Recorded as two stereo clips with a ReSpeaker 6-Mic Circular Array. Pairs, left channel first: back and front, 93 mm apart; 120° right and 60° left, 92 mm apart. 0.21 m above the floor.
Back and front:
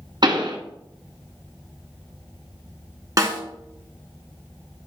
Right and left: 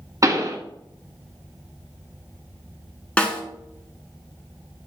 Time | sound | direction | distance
0.2 | a pop | 15° left | 1.5 m
3.2 | a snare drum | 45° right | 1.5 m